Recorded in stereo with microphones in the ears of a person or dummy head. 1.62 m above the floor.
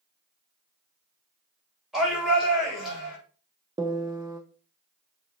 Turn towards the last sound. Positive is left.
turn(degrees=-15)  # may be behind; listen again after turning